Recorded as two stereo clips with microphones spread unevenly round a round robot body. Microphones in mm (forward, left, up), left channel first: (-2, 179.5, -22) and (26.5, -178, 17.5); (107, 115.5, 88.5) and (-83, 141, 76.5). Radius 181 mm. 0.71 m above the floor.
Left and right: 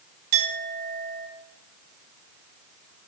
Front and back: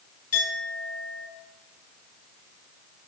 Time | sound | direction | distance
0.3 | a clink | 70° right | 4 m